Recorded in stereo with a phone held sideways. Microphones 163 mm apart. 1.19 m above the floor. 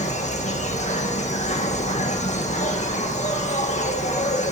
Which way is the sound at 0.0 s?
45° left (ahead or behind).